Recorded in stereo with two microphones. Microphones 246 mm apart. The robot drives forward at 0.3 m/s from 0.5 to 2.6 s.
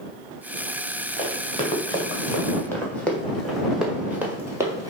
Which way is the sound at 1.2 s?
25° left (ahead or behind).